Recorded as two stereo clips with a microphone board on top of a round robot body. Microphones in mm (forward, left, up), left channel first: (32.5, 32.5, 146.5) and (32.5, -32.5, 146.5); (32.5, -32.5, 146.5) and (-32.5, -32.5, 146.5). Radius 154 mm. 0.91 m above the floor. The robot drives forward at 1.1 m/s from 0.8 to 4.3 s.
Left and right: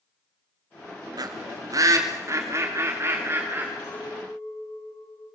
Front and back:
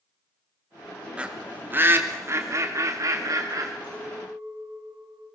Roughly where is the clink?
Behind left.